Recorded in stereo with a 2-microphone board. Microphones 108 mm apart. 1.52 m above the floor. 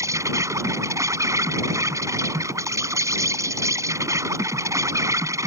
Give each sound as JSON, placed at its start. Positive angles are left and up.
{"t": 0.0, "sound": "an insect", "side_deg": -30}